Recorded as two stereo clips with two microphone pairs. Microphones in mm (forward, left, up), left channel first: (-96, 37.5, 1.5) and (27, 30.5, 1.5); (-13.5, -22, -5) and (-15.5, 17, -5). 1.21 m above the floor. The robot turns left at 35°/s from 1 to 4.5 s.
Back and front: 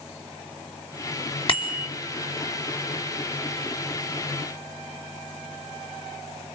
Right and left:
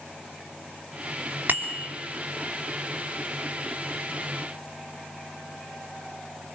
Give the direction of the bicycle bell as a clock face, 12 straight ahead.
8 o'clock.